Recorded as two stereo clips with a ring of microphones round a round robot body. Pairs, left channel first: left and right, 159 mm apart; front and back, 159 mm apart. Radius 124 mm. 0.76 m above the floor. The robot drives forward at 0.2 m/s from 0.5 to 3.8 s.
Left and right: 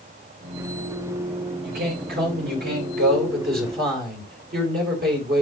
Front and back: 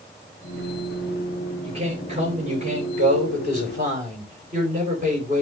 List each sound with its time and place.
1.6 s a man speaking: 120° right, 3.5 m; by 5.4 s 125° right, 4 m